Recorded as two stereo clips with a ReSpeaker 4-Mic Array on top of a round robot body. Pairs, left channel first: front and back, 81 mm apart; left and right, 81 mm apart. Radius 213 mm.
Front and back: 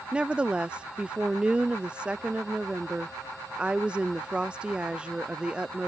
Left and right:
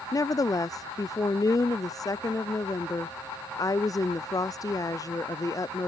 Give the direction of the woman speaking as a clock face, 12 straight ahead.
8 o'clock.